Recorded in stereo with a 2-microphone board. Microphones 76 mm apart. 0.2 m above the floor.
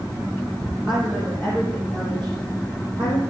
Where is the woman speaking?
15° left (ahead or behind), 6 m; by 3.2 s 30° left (ahead or behind), 6 m.